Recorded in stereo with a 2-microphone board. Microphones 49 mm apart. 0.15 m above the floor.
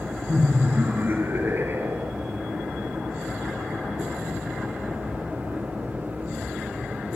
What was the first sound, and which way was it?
Laughter, 35° right (ahead or behind).